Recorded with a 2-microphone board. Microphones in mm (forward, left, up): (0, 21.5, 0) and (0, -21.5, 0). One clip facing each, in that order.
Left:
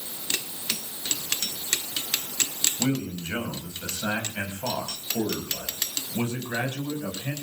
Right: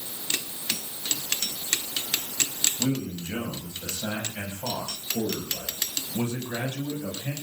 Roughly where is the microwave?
No microwave in this recording.